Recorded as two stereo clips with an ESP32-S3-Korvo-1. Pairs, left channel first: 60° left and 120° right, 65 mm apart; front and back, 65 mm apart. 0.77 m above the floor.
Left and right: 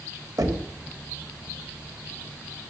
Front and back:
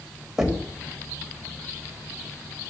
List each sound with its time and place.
0.4 s knocking: 95° right, 3 m